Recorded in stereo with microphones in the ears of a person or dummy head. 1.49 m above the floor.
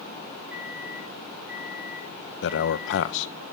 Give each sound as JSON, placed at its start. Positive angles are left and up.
{"t": 0.5, "sound": "a microwave", "side_deg": -10, "distance_m": 6.0}
{"t": 2.4, "sound": "a man speaking", "side_deg": 75, "distance_m": 1.0}